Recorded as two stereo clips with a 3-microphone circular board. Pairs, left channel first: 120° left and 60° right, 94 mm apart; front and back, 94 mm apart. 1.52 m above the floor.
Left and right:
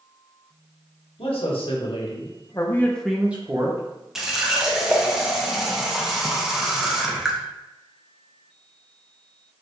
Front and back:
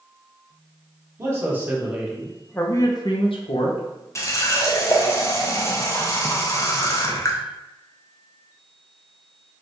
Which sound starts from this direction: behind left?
A man speaking, at 1.2 s.